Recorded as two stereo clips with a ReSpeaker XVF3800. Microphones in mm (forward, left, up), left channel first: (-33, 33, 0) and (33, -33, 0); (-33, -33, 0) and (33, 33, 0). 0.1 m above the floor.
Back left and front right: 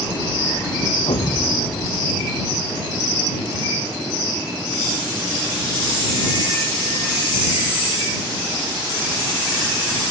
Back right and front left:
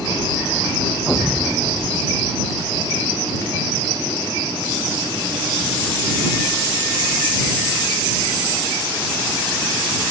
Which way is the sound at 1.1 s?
135° left.